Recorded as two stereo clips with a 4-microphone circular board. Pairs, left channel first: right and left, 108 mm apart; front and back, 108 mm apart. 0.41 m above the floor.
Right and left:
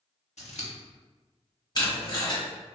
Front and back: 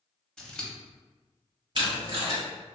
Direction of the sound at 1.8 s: 140° right.